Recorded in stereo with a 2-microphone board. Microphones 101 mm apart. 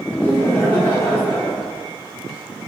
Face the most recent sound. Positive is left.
turn(degrees=20)  # may be behind; listen again after turning